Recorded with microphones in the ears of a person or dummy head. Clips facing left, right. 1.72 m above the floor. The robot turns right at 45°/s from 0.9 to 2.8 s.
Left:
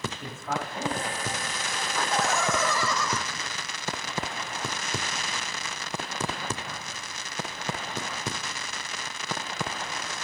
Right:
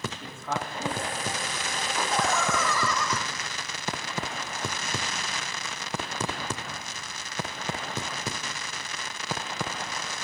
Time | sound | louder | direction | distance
0.2 | a man speaking | even | 5° left (ahead or behind) | 5 m
2.0 | laughter | even | 10° right | 3 m